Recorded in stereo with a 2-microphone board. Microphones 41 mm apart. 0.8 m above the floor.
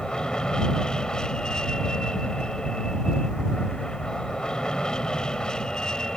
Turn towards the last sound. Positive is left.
turn(degrees=15)  # may be behind; listen again after turning